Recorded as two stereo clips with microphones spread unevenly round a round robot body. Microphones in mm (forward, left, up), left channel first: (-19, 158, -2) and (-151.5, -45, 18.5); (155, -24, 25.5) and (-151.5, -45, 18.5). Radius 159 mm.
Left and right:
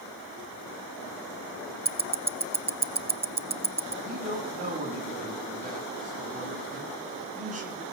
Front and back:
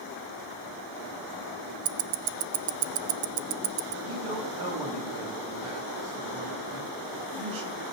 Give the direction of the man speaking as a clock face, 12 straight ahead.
6 o'clock.